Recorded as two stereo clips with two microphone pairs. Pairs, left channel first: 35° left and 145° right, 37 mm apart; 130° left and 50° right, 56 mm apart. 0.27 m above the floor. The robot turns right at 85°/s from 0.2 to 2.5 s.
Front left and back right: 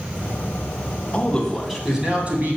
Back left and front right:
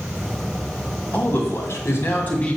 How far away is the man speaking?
About 2.5 m.